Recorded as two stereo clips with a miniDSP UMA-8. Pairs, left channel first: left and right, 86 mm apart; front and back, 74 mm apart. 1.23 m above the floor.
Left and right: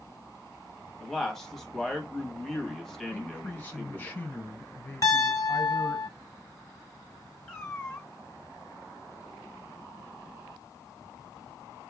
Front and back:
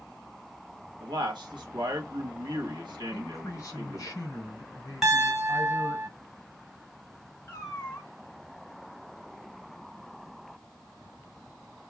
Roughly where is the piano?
Left.